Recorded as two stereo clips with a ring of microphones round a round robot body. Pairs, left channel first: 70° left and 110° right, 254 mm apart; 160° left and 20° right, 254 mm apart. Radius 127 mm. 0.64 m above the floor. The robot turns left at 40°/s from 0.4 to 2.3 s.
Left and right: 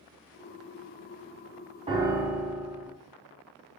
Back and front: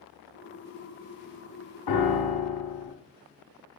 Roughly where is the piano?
Behind.